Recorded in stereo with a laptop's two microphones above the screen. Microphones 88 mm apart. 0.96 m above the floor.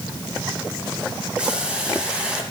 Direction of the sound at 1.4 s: 10° right (ahead or behind).